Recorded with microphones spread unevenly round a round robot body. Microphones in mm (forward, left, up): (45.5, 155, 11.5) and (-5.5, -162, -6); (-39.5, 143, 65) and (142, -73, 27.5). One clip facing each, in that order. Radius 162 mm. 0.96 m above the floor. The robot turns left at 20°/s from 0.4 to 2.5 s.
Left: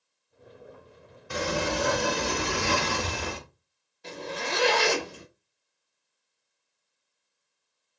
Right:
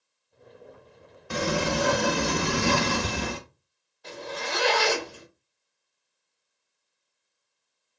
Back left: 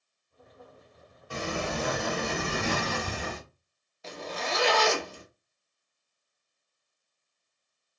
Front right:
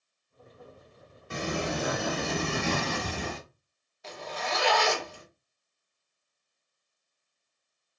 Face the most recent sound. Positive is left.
turn(degrees=145)